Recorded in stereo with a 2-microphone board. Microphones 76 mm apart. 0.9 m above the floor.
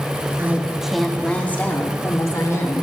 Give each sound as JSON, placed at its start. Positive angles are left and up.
{"t": 0.4, "sound": "a woman speaking", "side_deg": -30, "distance_m": 1.2}